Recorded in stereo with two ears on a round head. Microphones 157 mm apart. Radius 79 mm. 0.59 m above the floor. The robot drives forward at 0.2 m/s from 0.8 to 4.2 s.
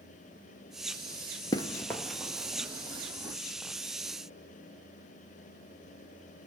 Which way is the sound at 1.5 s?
25° left (ahead or behind).